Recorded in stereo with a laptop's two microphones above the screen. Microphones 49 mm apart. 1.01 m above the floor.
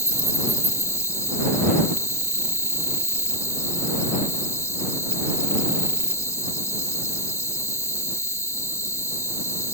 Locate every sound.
0.0 s an insect: 75° left (ahead or behind)